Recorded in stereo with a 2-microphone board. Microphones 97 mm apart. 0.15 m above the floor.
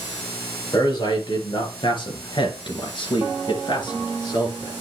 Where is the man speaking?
45° left (ahead or behind), 3 m.